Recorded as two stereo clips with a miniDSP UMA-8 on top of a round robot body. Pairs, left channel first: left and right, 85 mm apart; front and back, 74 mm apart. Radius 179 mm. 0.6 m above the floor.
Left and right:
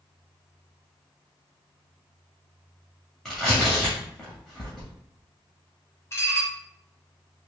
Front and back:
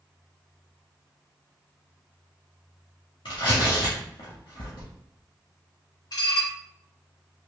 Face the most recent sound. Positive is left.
turn(degrees=30)